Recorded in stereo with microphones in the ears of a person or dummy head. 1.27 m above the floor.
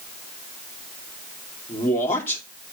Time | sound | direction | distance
1.7 | a man speaking | 15° left (ahead or behind) | 2.5 m